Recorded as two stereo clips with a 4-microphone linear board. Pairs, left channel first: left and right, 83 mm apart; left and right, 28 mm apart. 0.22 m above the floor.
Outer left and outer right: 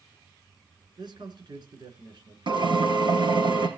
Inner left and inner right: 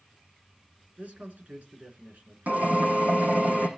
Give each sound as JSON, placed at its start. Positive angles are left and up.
{"t": 1.0, "sound": "a man speaking", "side_deg": -65, "distance_m": 3.5}
{"t": 2.5, "sound": "a drill", "side_deg": -75, "distance_m": 5.0}